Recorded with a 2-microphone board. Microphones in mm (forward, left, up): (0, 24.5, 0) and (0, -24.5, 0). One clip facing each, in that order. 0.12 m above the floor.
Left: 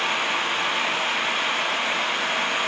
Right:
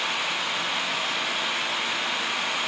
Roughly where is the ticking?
No ticking in this recording.